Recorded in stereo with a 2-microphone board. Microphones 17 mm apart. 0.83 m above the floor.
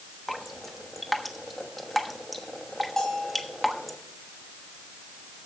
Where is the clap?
I don't hear a clap.